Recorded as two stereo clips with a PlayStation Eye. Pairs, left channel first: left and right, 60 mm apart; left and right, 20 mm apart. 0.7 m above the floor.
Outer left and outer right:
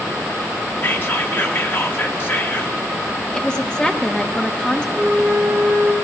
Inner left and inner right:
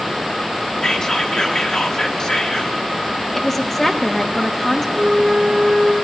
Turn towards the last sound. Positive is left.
turn(degrees=0)  # may be behind; listen again after turning